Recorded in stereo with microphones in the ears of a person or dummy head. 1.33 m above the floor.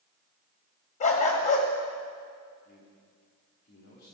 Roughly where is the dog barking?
Left.